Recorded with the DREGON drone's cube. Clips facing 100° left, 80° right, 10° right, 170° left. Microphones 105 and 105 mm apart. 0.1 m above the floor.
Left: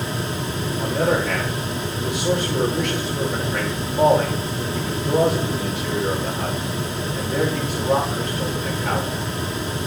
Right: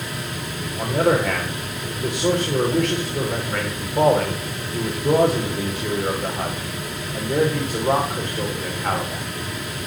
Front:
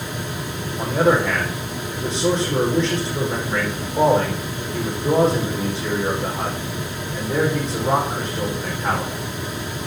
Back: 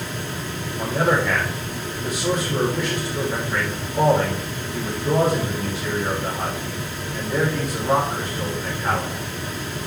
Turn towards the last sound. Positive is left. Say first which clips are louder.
# right 2 dB, front 3 dB
turn(degrees=-75)